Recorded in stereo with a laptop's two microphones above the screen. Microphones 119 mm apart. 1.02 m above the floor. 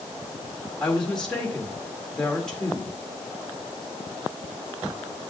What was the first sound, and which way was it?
A woman speaking, 5° left (ahead or behind).